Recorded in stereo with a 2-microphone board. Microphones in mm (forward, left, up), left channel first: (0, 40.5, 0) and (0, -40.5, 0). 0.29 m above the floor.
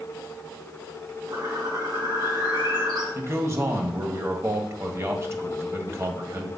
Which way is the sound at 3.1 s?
35° right (ahead or behind).